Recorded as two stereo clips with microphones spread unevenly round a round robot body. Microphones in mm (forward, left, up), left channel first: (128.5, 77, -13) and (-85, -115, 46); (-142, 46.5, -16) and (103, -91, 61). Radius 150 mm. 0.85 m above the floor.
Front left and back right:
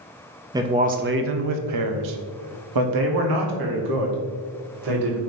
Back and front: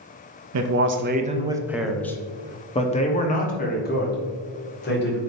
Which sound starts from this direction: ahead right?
A man speaking, at 0.5 s.